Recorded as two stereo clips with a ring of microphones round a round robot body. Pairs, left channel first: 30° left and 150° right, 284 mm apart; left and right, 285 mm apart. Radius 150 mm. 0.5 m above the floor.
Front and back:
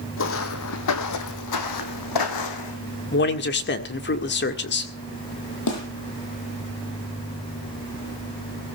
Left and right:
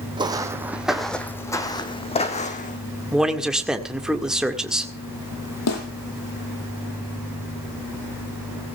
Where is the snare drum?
55° left, 8 m.